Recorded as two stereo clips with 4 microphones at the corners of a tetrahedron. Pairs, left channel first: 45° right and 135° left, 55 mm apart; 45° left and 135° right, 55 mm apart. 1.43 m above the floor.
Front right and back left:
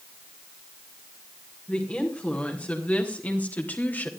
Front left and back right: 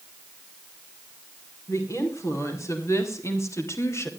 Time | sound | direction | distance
1.7 | a woman speaking | 20° left | 5 m